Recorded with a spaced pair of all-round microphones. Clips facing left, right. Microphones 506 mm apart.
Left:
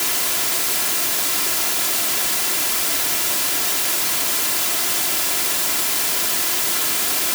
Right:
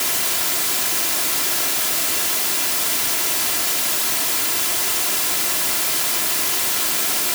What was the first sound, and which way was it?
Only background noise.